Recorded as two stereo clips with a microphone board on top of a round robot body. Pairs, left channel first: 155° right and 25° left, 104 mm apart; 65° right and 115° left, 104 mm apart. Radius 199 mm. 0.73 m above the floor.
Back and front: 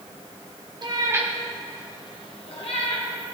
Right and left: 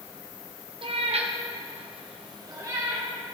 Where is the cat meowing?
70° left, 1.1 m; by 3.1 s 175° left, 1.9 m.